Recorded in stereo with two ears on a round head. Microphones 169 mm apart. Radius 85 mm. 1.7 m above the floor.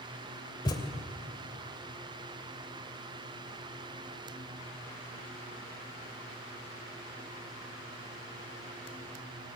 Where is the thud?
20° left (ahead or behind), 2.5 m.